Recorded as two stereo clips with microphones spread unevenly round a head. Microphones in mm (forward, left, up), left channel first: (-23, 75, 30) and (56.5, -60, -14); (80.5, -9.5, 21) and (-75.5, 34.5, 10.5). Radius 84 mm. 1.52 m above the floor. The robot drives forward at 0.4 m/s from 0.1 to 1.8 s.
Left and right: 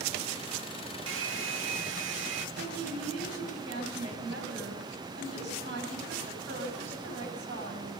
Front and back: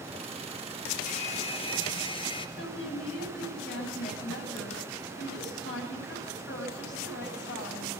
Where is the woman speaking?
40° right, 9.5 m.